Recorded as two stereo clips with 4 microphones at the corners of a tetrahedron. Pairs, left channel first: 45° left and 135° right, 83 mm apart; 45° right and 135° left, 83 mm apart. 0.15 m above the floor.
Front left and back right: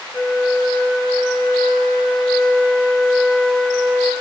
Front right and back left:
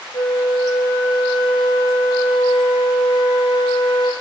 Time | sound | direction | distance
0.1 | a flute | 40° right | 0.8 m